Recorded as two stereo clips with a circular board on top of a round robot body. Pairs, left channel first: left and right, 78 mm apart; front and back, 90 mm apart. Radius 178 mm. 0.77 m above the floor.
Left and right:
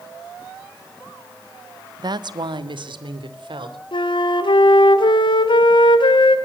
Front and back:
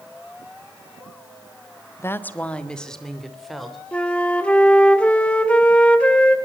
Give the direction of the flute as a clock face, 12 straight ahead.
9 o'clock.